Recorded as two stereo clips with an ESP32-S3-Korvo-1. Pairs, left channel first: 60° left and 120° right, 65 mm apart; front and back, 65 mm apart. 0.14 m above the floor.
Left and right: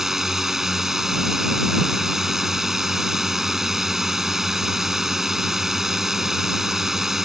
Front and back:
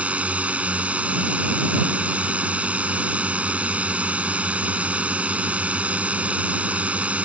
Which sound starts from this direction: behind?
A drone, at 0.0 s.